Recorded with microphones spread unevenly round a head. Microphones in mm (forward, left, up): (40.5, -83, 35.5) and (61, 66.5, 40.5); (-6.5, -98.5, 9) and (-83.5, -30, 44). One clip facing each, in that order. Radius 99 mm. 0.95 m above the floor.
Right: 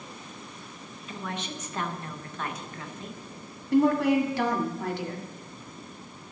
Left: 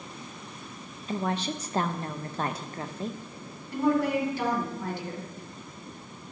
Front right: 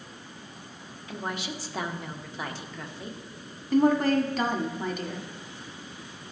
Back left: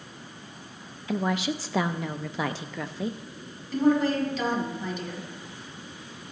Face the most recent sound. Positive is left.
turn(degrees=-70)